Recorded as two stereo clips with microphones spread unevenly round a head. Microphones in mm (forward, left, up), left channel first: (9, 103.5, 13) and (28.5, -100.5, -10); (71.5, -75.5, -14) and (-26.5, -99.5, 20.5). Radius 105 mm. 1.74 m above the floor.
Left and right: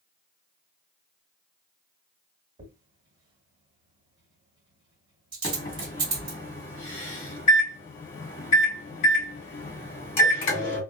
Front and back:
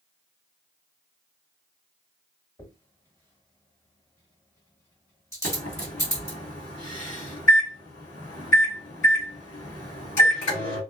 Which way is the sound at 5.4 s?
45° left.